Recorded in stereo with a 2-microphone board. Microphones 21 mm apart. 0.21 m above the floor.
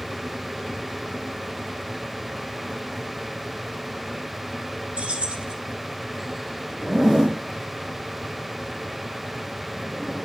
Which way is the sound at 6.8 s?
25° right (ahead or behind).